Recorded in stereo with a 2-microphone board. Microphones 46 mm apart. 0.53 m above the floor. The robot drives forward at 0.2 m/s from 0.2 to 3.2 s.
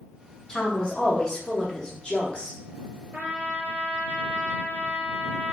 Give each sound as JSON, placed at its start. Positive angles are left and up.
{"t": 0.5, "sound": "a woman speaking", "side_deg": 20, "distance_m": 0.8}
{"t": 3.1, "sound": "a trumpet", "side_deg": -40, "distance_m": 0.5}